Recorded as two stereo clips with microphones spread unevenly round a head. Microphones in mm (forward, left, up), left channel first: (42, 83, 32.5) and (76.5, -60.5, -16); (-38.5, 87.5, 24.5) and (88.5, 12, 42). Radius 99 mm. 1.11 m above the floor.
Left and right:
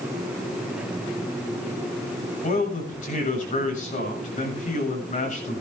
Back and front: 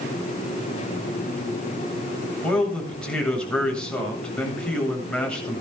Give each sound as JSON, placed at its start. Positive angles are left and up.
{"t": 2.4, "sound": "a man speaking", "azimuth_deg": 65, "distance_m": 7.5}